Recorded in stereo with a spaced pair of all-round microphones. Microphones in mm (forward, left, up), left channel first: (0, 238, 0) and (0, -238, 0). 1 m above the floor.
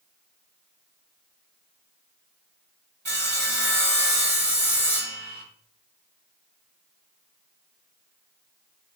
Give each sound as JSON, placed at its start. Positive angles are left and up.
{"t": 3.0, "sound": "sawing", "side_deg": -60, "distance_m": 1.4}